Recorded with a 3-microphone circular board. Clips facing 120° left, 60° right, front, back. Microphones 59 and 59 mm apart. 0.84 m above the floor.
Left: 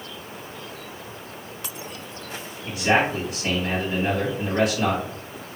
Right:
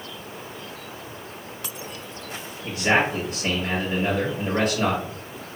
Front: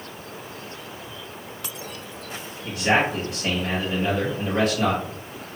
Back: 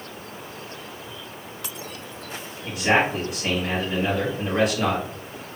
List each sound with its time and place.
2.6 s a man speaking: 100° right, 1.3 m